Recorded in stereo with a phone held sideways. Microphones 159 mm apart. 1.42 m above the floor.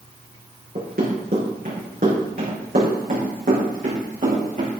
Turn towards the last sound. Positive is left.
turn(degrees=-50)  # may be behind; listen again after turning